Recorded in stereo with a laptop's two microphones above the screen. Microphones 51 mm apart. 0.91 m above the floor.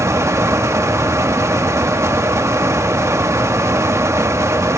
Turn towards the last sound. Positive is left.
turn(degrees=-70)  # may be behind; listen again after turning